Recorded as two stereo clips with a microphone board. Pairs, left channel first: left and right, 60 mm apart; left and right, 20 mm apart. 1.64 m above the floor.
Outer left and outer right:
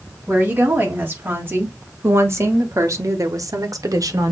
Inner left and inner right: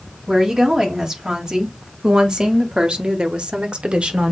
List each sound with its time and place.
0.3 s a woman speaking: 30° right (ahead or behind), 2.5 m; by 4.3 s 65° right (ahead or behind), 1.1 m